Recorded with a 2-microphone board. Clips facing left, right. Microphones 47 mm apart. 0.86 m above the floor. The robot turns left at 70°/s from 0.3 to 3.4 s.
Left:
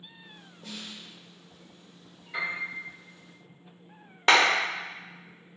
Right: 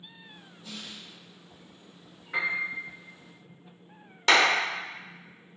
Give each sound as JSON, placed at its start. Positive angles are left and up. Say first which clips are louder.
{"t": 0.6, "sound": "a snare drum", "louder": "left 1 dB", "side_deg": 60, "distance_m": 1.1}
{"t": 2.3, "sound": "a piano", "louder": "right 3 dB", "side_deg": -60, "distance_m": 1.3}
{"t": 4.3, "sound": "a clap", "louder": "left 1 dB", "side_deg": 25, "distance_m": 0.8}